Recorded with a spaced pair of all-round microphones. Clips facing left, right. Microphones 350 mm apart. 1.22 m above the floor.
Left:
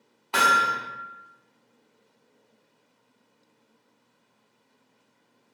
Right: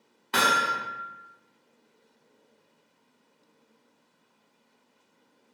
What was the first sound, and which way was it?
Hammering, 25° right (ahead or behind).